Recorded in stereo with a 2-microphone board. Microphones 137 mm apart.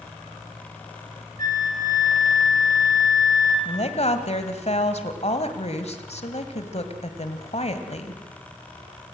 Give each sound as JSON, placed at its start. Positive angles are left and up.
{"t": 1.4, "sound": "a flute", "side_deg": -80, "distance_m": 3.0}
{"t": 3.6, "sound": "a woman speaking", "side_deg": 50, "distance_m": 1.9}